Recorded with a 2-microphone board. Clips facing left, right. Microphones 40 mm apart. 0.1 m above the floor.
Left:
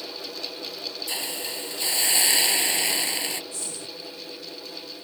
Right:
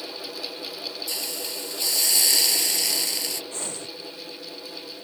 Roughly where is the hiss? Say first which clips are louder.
Left 1 dB; left.